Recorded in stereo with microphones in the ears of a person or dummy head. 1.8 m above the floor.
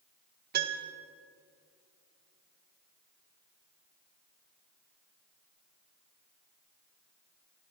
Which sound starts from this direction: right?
A piano, at 0.5 s.